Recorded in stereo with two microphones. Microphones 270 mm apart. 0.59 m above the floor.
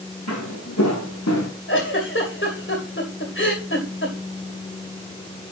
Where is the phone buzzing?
I don't hear a phone buzzing.